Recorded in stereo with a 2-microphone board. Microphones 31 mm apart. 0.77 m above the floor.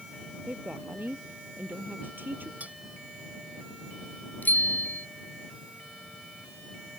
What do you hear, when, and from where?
0.5 s a woman speaking: 85° right
2.6 s cutlery clinking: 55° right (ahead or behind)
4.4 s a bicycle bell: 70° left (ahead or behind)